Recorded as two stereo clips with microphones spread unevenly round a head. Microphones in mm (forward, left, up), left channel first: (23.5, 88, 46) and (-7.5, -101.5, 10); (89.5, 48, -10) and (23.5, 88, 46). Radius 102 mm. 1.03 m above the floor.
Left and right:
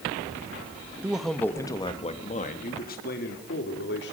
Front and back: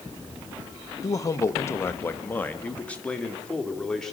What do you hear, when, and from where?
1.0 s a man speaking: 20° right, 1.3 m; by 4.1 s 45° left, 3 m